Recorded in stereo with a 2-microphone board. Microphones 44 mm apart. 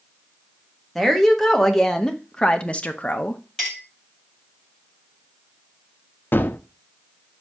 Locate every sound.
0.9 s a woman speaking: 5° left (ahead or behind), 1.3 m; by 3.4 s 35° left (ahead or behind), 0.6 m
3.6 s a clink: 15° left (ahead or behind), 2.5 m
6.3 s a gunshot: 50° left (ahead or behind), 0.5 m